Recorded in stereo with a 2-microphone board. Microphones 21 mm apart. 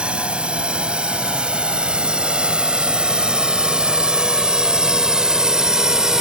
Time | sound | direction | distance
0.0 | a drone | 60° right (ahead or behind) | ?